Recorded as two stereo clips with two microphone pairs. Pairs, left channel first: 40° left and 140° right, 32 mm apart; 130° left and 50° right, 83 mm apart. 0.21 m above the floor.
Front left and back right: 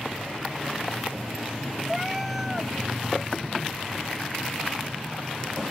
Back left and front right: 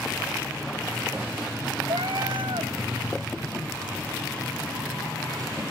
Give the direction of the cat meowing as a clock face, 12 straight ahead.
2 o'clock.